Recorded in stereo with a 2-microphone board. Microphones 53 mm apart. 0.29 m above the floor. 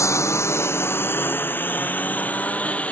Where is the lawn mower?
65° left (ahead or behind); by 2.9 s 25° left (ahead or behind).